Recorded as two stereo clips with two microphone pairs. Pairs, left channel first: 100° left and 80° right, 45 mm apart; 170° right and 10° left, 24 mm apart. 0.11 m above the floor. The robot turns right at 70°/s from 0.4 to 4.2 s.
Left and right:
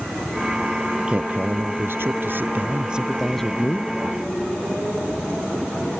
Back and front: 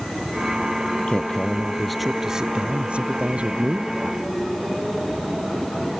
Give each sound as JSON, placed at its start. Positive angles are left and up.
{"t": 1.0, "sound": "a man speaking", "azimuth_deg": -150}